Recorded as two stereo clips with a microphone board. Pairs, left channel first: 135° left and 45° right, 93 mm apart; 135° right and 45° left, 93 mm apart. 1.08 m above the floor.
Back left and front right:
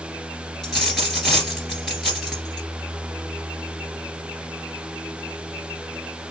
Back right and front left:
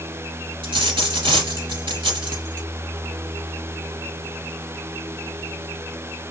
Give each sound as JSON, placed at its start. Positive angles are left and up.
{"t": 0.6, "sound": "a dropped coin", "azimuth_deg": 45, "distance_m": 2.5}